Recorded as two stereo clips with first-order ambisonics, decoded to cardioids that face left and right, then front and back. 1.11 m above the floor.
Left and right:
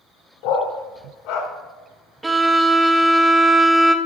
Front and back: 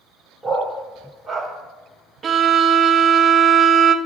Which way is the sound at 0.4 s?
95° left.